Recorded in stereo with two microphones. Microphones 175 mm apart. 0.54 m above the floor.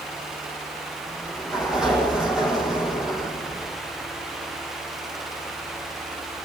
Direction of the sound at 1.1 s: 5° right (ahead or behind).